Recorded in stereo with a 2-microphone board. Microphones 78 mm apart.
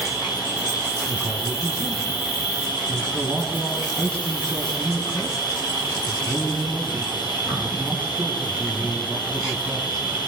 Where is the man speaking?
15° left (ahead or behind), 2.5 m.